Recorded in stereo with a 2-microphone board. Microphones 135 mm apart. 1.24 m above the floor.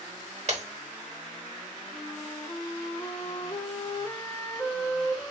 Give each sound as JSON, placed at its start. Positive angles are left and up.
{"t": 0.5, "sound": "breaking glass", "side_deg": -50, "distance_m": 1.0}
{"t": 1.9, "sound": "a flute", "side_deg": 20, "distance_m": 0.6}